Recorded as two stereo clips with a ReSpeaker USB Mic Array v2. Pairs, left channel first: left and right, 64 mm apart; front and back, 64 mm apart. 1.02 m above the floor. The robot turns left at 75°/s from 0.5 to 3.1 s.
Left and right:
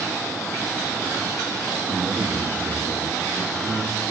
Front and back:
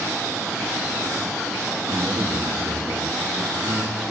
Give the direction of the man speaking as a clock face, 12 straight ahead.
5 o'clock.